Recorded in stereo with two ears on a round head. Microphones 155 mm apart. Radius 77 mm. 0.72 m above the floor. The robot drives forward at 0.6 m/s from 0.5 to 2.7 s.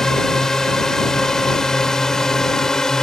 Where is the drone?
5° left (ahead or behind).